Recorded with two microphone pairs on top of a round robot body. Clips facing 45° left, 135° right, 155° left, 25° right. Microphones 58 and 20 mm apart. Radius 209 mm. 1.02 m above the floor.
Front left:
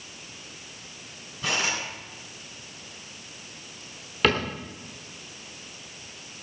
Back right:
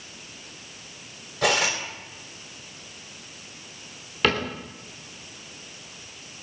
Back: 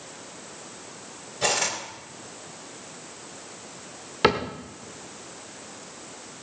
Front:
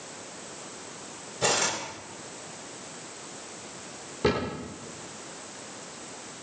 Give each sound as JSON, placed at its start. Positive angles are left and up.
{"t": 1.4, "sound": "cutlery clinking", "azimuth_deg": -140, "distance_m": 3.5}
{"t": 4.2, "sound": "a cupboard door", "azimuth_deg": 135, "distance_m": 1.0}